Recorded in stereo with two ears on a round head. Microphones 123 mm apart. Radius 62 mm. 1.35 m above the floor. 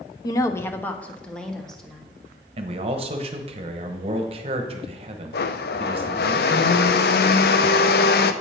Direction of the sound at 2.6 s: 45° right (ahead or behind).